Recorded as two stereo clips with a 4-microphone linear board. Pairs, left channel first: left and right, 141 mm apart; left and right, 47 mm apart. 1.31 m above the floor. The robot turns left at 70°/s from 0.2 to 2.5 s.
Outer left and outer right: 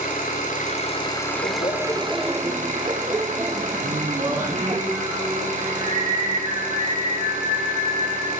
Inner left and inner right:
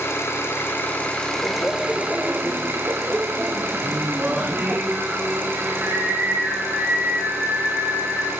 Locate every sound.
0.0 s an engine running: 95° left, 3 m; by 8.4 s 65° right, 3 m
1.4 s laughter: 55° left, 0.6 m; by 4.8 s 20° right, 0.6 m
3.8 s singing: 60° right (ahead or behind), 4 m